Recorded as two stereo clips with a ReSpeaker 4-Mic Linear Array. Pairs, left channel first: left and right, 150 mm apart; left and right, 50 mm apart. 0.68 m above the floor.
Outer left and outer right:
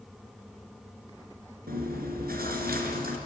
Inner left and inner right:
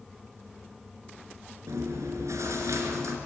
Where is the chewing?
80° right, 4 m.